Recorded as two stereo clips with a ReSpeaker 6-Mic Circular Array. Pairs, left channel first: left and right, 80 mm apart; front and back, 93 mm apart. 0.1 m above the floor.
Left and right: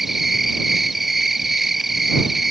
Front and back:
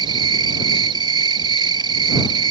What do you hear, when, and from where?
0.0 s an insect: 175° right